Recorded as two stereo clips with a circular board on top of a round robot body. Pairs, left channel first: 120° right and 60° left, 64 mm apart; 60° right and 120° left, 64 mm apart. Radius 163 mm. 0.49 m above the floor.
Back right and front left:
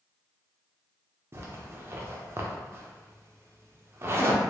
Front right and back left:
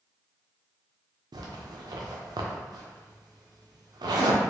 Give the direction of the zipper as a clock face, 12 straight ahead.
8 o'clock.